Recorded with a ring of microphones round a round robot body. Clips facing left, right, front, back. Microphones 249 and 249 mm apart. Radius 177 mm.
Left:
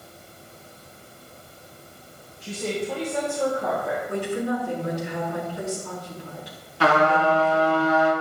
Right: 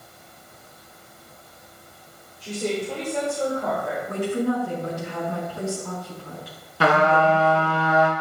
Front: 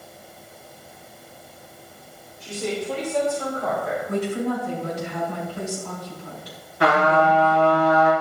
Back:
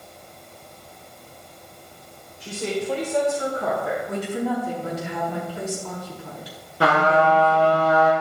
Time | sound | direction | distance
2.4 | a woman speaking | 165° right | 3.5 m
4.1 | a woman speaking | 150° right | 5 m
6.8 | a trumpet | 110° right | 2.5 m